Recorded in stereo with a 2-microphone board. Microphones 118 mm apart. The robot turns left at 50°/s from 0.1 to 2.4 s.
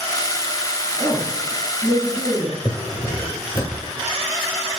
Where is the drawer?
40° left (ahead or behind), 0.9 m.